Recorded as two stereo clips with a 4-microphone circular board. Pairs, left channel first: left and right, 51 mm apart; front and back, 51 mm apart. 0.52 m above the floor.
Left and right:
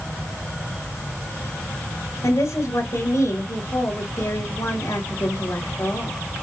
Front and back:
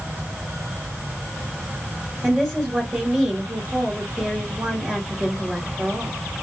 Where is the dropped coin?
I don't hear a dropped coin.